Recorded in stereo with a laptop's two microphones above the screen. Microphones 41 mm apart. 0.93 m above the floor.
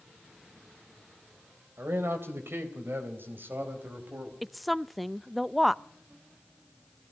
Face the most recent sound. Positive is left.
turn(degrees=0)  # may be behind; listen again after turning